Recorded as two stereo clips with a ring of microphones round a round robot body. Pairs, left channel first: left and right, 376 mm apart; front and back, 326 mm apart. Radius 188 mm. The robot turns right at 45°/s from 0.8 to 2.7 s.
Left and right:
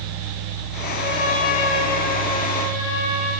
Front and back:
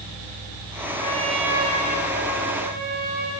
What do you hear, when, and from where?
1.0 s a trumpet: 75° left, 7.5 m; by 3.3 s 150° left, 7.5 m